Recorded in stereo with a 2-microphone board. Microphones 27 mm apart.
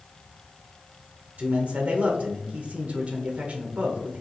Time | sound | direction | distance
1.4 | a man speaking | 60° right (ahead or behind) | 0.9 m